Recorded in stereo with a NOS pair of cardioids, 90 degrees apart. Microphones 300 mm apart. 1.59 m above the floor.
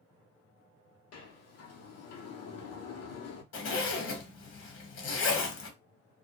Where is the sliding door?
65° left, 0.7 m.